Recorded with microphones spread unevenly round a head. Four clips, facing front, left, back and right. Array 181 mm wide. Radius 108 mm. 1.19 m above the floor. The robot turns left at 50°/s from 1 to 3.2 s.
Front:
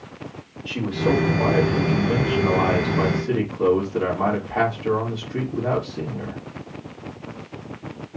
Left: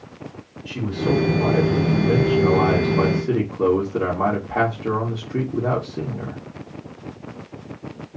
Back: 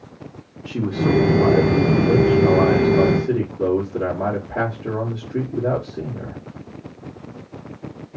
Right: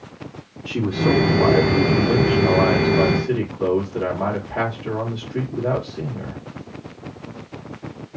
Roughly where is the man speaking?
Behind right.